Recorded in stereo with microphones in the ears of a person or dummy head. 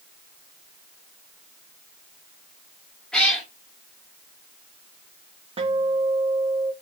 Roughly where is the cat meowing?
Centre.